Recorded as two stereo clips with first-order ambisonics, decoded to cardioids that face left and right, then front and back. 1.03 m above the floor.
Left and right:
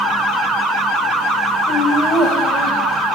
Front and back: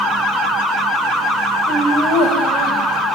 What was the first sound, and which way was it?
Laughter, 145° left.